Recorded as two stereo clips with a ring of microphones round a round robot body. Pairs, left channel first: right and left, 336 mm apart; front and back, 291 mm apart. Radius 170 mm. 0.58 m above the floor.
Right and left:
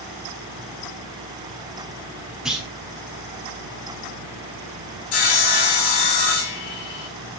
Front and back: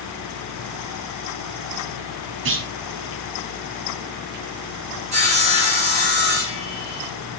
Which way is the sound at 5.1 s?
110° right.